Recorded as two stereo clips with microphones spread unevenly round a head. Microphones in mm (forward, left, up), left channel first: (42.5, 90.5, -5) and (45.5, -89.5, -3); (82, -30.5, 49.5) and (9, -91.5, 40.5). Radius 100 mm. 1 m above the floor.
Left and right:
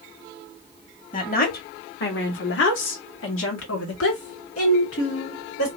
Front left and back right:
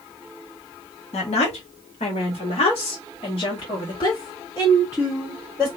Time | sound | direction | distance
1.1 | a woman speaking | 45° left | 1.6 m